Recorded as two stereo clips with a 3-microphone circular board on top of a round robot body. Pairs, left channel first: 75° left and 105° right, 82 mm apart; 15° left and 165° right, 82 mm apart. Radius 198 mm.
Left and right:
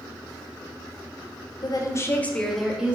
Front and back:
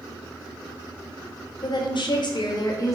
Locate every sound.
1.6 s a woman speaking: 45° left, 0.7 m; by 3.0 s 30° right, 0.9 m